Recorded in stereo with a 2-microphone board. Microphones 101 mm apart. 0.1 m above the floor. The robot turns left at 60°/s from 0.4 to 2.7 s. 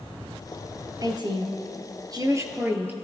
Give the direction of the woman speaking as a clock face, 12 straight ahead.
2 o'clock.